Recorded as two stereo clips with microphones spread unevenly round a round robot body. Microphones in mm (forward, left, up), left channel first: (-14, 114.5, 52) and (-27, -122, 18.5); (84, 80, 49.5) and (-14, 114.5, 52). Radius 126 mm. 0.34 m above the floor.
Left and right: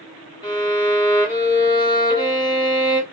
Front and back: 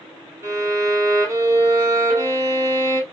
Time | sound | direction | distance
0.4 | a violin | 150° left | 1.5 m